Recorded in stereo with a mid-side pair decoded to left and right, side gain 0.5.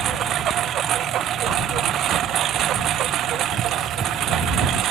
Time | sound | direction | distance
0.0 | a lawn mower | 60° right | ?